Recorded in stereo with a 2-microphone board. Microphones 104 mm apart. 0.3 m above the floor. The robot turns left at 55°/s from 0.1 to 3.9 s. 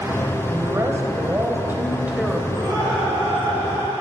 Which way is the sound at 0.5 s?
25° right (ahead or behind).